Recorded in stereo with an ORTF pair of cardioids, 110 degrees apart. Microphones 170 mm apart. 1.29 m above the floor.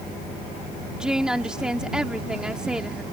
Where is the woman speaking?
5° right.